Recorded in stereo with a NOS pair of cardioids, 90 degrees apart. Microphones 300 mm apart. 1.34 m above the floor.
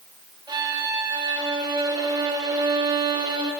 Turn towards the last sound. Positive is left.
turn(degrees=-15)